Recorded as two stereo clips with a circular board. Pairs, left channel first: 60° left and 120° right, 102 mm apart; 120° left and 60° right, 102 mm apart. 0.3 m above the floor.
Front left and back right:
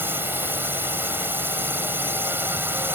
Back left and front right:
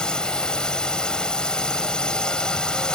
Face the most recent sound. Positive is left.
turn(degrees=-165)